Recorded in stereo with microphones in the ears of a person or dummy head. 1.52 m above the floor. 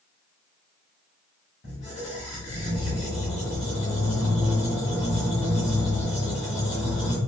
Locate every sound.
1.6 s a squeak: 25° left (ahead or behind), 1.3 m